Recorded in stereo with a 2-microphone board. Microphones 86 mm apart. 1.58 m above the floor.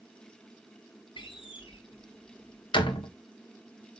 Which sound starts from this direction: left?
A door slam, at 1.2 s.